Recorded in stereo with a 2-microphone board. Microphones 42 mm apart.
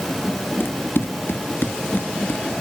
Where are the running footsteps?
60° left (ahead or behind).